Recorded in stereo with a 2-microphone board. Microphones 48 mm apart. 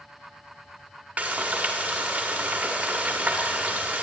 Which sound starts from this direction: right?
Frying, at 1.2 s.